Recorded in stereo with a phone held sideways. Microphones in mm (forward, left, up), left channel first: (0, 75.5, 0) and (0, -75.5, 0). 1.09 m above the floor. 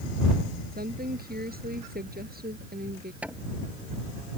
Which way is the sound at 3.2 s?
10° right (ahead or behind).